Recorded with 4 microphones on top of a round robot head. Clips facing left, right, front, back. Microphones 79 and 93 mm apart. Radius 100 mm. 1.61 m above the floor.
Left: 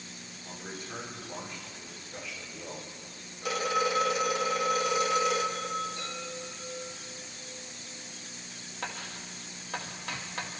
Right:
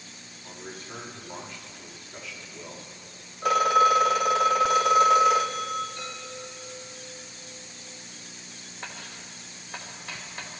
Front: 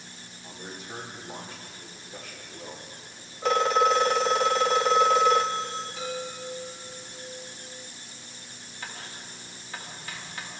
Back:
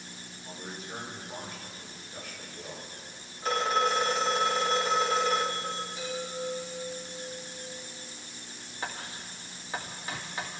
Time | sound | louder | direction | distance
0.4 | a man speaking | right 1 dB, front 1 dB | 10° left | 5.5 m
3.4 | a phone ringing | right 9 dB, front 5 dB | 30° right | 0.6 m
6.0 | a chime | right 1 dB, front 1 dB | 30° left | 6.5 m
8.8 | writing | left 3 dB, back 3 dB | 115° left | 2 m